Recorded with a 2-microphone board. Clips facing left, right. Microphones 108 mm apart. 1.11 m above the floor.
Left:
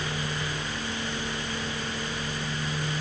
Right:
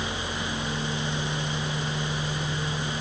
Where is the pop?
I don't hear a pop.